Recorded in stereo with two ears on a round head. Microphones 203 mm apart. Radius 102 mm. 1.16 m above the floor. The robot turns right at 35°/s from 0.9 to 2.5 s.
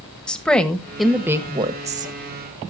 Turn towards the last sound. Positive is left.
turn(degrees=-130)